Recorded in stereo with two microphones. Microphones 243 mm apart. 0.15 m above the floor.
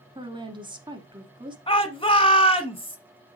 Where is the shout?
20° left (ahead or behind), 1.1 m.